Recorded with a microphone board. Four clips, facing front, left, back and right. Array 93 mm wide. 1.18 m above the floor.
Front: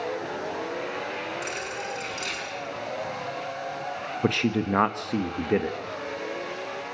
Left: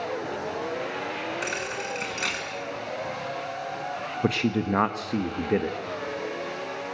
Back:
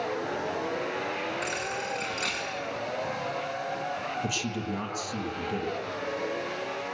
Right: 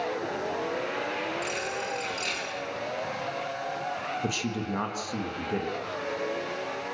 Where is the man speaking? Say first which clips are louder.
Left 6 dB, front 7 dB; 30° left, 1.2 m.